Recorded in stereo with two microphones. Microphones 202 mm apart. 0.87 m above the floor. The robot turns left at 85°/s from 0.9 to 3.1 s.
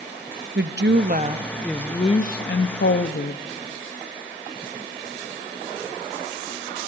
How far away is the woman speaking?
About 0.7 m.